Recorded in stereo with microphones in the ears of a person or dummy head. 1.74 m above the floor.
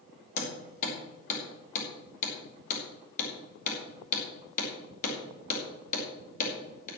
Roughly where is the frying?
No frying in this recording.